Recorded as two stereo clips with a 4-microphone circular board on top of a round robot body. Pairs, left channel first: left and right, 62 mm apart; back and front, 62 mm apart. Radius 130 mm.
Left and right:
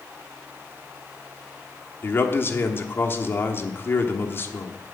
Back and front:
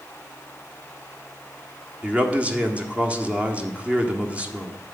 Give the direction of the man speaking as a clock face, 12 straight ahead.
10 o'clock.